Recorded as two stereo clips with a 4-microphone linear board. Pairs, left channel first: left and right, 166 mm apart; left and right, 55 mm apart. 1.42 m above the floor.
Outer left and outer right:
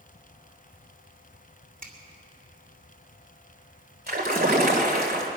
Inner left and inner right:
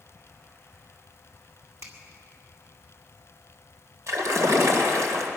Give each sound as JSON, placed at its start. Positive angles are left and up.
{"t": 1.8, "sound": "a finger snap", "side_deg": -50, "distance_m": 2.5}
{"t": 4.1, "sound": "a splash", "side_deg": -60, "distance_m": 2.0}